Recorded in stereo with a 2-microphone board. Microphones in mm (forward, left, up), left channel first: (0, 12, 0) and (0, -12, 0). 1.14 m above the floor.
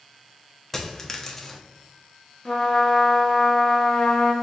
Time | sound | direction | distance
0.7 | a dropped coin | 15° left (ahead or behind) | 0.5 m
2.5 | a trumpet | 30° left (ahead or behind) | 0.8 m